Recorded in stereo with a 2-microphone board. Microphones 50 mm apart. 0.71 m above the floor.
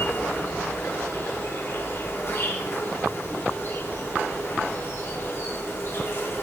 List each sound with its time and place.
0.0 s an insect: 55° left (ahead or behind), 4 m